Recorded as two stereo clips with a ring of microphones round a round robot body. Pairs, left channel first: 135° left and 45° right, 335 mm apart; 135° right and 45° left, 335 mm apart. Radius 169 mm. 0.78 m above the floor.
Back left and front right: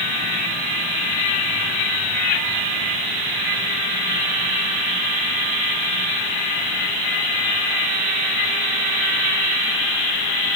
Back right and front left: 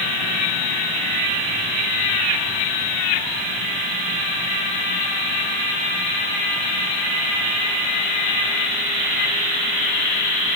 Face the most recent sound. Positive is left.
No sound to turn to.